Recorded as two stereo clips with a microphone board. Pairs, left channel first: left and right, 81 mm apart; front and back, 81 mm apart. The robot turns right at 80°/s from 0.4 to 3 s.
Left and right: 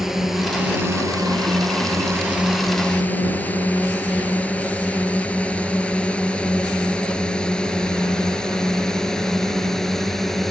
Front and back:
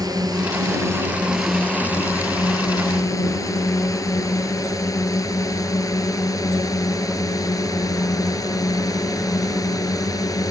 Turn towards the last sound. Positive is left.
turn(degrees=5)